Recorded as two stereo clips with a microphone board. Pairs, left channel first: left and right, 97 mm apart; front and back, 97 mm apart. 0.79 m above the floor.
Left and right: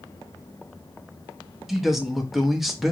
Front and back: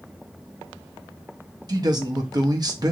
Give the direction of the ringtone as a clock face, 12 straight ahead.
I don't hear a ringtone.